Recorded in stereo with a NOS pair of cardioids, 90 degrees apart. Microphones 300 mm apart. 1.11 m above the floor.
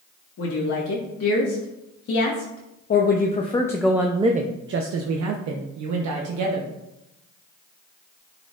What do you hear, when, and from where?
0.4 s a woman speaking: 60° left, 2.0 m; by 6.7 s 80° right, 1.4 m